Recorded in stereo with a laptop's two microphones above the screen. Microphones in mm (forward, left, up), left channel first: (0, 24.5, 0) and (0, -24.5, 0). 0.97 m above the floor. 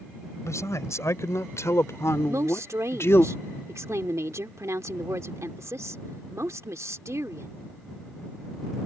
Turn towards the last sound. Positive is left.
turn(degrees=-80)